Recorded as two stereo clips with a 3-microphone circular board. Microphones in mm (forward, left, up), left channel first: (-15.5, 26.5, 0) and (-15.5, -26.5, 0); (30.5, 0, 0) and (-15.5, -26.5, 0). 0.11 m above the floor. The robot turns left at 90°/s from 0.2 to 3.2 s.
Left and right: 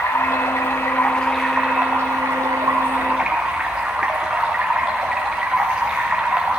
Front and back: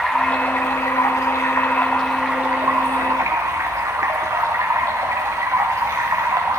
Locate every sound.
0.0 s running water: 105° left, 3.5 m; by 6.6 s 165° right, 3.5 m